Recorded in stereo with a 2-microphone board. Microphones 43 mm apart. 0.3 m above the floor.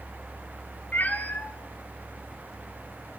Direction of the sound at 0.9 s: 45° left (ahead or behind).